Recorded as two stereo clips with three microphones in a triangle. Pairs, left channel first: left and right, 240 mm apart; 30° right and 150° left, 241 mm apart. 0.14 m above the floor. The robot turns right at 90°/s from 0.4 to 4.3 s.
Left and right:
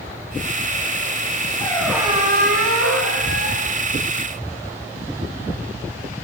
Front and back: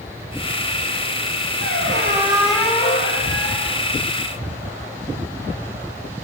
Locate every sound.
1.6 s a squeak: 155° left, 4 m; by 3.8 s 5° right, 4 m